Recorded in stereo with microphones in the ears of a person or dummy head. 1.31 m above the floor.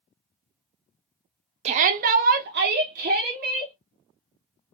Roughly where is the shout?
Right.